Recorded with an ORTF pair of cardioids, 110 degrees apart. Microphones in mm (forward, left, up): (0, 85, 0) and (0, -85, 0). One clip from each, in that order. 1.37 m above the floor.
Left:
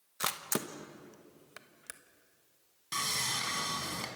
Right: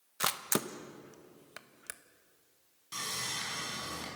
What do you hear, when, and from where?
0.2 s a camera shutter: 10° right, 1.0 m
2.9 s sawing: 45° left, 4 m